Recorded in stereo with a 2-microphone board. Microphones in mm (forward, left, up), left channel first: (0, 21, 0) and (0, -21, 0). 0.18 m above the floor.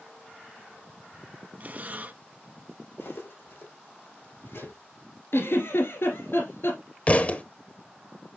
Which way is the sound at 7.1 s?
35° left (ahead or behind).